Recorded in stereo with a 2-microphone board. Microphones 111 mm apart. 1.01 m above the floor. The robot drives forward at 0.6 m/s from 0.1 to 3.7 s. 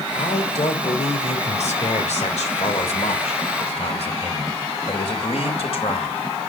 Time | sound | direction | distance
0.1 | a man speaking | 80° left | 3.5 m